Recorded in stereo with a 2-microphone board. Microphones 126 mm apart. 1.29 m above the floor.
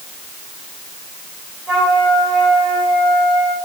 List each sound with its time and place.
1.7 s a flute: 5° right (ahead or behind), 3 m